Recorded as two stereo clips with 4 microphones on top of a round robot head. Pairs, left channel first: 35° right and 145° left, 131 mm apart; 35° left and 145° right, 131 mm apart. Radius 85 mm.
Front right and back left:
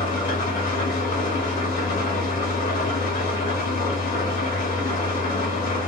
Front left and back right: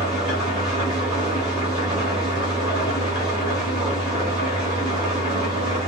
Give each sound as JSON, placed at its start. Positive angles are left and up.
{"t": 0.0, "sound": "an engine running", "azimuth_deg": -60, "distance_m": 2.5}